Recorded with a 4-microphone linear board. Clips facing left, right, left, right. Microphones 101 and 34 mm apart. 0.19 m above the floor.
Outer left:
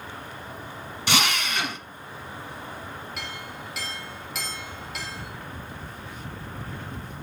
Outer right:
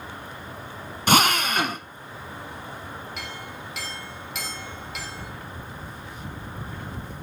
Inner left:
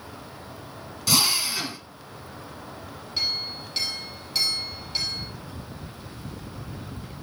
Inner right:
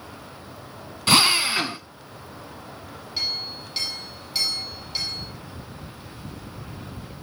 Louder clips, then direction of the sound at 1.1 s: Outer right 6 dB, inner right 5 dB; 50° right (ahead or behind).